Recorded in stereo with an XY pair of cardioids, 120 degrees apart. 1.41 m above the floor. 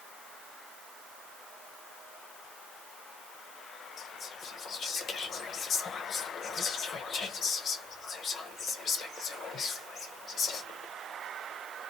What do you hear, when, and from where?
4.0 s whispering: 50° left, 0.9 m